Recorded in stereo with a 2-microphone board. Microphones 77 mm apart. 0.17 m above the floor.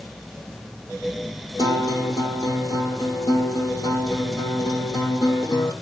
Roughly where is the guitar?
Left.